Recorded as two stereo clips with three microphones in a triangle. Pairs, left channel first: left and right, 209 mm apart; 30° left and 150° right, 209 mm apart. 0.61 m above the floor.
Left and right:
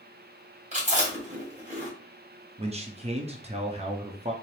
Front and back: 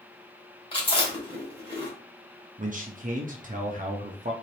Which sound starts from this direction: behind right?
A man speaking, at 2.6 s.